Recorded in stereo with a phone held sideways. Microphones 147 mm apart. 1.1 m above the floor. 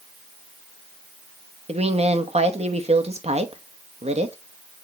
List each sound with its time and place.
1.7 s a woman speaking: 50° right (ahead or behind), 1.0 m